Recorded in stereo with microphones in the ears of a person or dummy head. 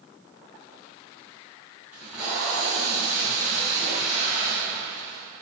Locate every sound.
1.9 s tape being pulled: 10° right (ahead or behind), 3.5 m